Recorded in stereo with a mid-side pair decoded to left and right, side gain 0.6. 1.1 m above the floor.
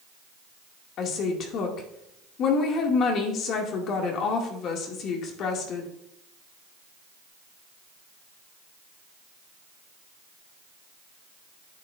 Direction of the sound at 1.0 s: 60° left.